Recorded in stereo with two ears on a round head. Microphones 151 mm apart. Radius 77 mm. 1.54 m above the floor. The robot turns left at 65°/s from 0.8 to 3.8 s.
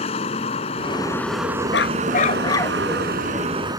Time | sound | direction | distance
0.0 | a vehicle | 35° left | ?
1.7 | a dog barking | 75° left | ?